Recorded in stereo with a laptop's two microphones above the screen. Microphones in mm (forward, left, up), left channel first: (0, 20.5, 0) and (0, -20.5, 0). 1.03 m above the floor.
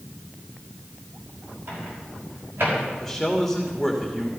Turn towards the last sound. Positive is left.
turn(degrees=-5)  # may be behind; listen again after turning